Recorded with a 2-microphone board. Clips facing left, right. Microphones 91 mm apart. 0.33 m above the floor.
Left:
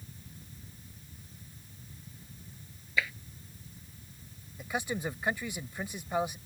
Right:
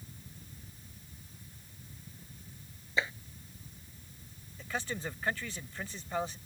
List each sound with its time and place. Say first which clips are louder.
3.0 s tapping: even; 30° right (ahead or behind)
4.6 s a man speaking: left 3 dB; 15° left (ahead or behind)